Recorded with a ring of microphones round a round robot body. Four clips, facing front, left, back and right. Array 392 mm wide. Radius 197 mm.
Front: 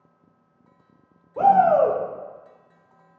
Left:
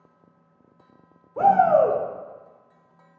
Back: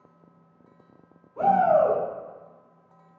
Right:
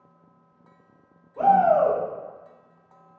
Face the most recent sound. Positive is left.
turn(degrees=45)